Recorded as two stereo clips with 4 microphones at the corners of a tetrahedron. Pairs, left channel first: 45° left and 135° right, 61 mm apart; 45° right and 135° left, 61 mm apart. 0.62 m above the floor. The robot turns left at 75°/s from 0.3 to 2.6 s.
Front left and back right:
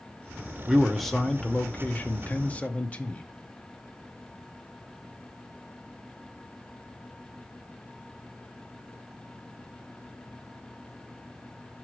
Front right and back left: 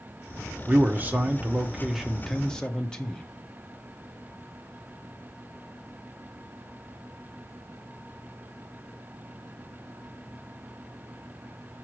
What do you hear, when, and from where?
0.7 s a man speaking: 160° left, 0.8 m; by 3.2 s 10° left, 0.8 m